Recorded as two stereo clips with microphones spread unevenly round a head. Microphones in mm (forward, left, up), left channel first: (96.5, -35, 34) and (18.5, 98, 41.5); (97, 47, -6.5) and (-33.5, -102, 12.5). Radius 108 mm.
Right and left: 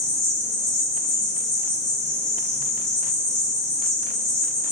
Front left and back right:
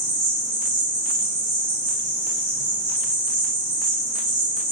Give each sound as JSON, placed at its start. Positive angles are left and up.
{"t": 0.0, "sound": "an insect", "azimuth_deg": -100, "distance_m": 1.4}